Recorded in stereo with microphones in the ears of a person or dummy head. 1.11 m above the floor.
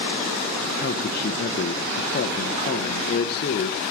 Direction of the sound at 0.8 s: 50° left (ahead or behind).